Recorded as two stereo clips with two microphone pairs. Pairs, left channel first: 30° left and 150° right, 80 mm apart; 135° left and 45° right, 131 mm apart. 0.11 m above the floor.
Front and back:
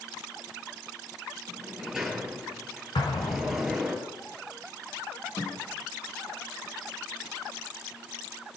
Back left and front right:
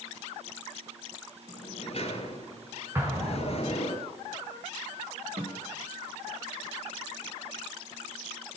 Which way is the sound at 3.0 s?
25° left.